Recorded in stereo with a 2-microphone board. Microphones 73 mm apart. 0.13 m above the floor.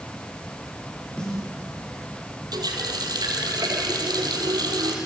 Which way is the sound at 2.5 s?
65° right (ahead or behind).